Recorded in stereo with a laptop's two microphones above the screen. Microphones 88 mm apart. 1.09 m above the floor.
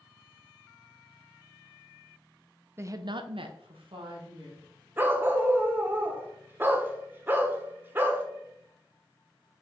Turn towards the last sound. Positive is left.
turn(degrees=-25)  # may be behind; listen again after turning